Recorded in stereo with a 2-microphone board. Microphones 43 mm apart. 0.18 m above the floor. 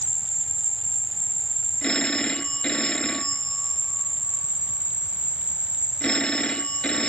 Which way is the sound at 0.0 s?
50° left (ahead or behind).